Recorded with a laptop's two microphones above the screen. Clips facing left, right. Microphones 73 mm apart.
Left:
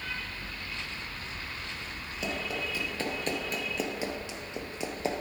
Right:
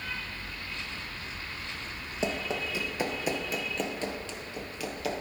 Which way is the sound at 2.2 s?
30° right (ahead or behind).